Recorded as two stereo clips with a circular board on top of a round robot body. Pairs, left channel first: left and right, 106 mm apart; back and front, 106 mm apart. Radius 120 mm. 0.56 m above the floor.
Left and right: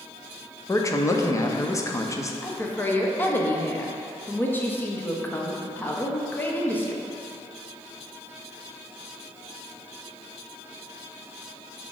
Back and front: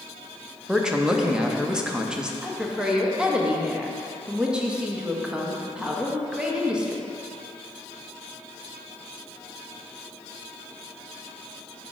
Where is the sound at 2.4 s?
65° left, 0.9 m.